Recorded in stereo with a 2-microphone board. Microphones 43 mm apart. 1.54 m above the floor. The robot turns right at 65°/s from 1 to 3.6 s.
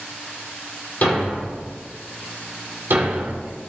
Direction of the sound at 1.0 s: 45° left (ahead or behind).